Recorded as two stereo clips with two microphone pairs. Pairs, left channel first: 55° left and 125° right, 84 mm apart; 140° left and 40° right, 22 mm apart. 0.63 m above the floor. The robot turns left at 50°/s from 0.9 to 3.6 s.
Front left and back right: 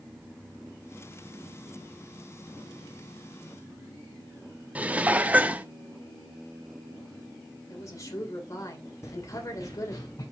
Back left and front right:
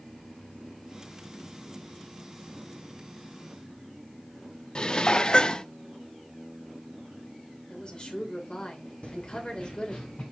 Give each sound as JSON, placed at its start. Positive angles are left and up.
{"t": 4.8, "sound": "dishes clattering", "azimuth_deg": 170, "distance_m": 0.5}
{"t": 7.7, "sound": "a woman speaking", "azimuth_deg": 100, "distance_m": 2.5}
{"t": 9.0, "sound": "running footsteps", "azimuth_deg": 110, "distance_m": 1.9}